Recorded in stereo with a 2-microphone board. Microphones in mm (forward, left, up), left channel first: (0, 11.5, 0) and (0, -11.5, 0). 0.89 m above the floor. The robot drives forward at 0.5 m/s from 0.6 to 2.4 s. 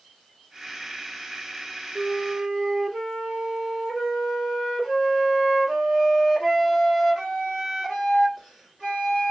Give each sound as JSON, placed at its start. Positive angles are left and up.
{"t": 1.9, "sound": "a flute", "side_deg": -10, "distance_m": 2.0}